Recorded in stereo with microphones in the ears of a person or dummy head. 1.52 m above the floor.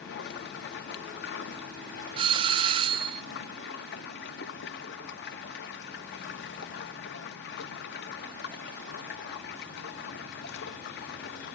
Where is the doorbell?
30° right (ahead or behind), 0.6 m.